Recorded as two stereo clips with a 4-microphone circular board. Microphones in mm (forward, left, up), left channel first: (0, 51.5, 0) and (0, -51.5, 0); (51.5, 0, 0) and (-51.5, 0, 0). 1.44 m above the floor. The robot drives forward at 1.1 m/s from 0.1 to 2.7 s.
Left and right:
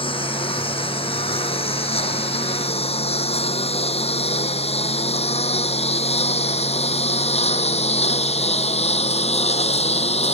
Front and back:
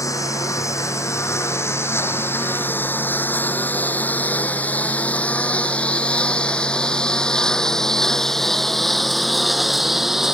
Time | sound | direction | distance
0.0 | a lawn mower | 60° left | ?